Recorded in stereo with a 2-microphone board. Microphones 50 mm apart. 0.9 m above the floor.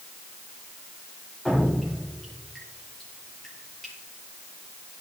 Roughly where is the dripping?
Centre.